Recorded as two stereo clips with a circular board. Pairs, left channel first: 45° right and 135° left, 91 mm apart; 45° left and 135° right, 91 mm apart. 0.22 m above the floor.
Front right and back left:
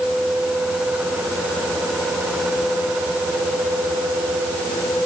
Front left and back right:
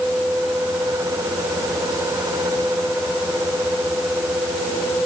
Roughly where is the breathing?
No breathing in this recording.